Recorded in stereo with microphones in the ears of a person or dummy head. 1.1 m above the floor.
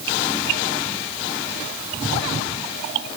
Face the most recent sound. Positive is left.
No sound to turn to.